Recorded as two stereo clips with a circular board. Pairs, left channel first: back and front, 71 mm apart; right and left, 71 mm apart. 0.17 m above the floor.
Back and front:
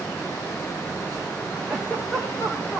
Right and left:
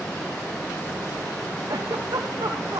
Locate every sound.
1.7 s a giggle: 105° left, 4.5 m